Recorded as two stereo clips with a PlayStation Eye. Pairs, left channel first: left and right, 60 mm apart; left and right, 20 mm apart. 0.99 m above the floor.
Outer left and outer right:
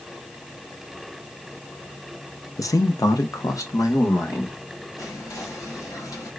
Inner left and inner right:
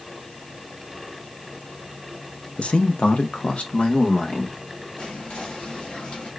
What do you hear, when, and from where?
2.6 s a man speaking: 70° left (ahead or behind), 0.5 m
5.0 s whispering: 80° left, 1.2 m